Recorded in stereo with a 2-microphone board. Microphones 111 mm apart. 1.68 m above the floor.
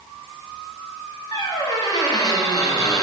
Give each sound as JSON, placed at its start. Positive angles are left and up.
{"t": 1.3, "sound": "a squeak", "side_deg": 35, "distance_m": 0.9}